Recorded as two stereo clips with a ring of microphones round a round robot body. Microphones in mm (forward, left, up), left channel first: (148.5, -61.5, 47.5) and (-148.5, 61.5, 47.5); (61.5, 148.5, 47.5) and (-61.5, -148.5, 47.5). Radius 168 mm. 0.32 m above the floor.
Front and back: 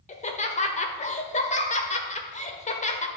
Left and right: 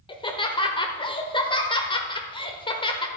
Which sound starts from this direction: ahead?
Laughter, at 0.1 s.